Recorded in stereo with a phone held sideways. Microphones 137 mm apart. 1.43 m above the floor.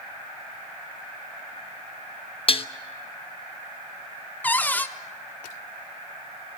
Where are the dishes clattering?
45° left (ahead or behind), 0.8 m.